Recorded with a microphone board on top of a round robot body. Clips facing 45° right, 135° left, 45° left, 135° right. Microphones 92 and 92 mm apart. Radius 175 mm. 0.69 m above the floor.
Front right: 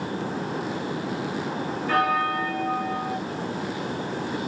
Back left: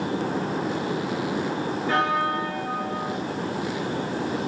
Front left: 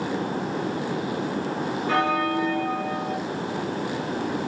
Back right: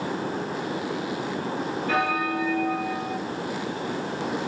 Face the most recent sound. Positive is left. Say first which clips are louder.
# front right 1 dB, front left 2 dB
turn(degrees=-5)